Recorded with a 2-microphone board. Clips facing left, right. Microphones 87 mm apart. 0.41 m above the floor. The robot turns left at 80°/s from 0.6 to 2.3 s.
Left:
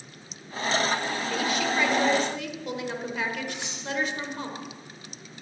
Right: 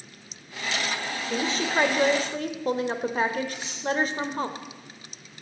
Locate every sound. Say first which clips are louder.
1.3 s a woman speaking: right 2 dB; 30° right, 1.3 m; by 4.5 s 110° right, 1.3 m
3.5 s cutlery clinking: left 1 dB; 80° left, 7.5 m